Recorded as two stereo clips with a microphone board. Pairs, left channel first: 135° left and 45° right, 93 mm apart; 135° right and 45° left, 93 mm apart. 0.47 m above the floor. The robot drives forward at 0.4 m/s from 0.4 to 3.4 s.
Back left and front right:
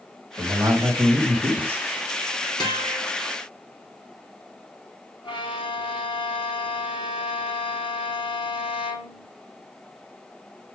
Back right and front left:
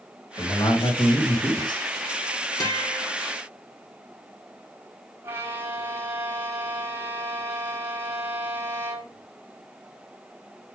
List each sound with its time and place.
0.4 s a man speaking: 100° right, 3 m; by 1.8 s 110° right, 3 m
2.6 s a guitar: 175° left, 2.5 m
5.2 s a violin: 110° left, 1.2 m